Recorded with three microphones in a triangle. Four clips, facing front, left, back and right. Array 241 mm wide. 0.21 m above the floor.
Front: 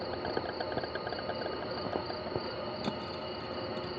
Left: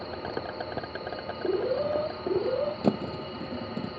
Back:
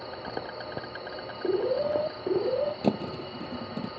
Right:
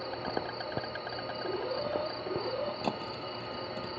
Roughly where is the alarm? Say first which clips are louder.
Left 8 dB, back 10 dB; behind left.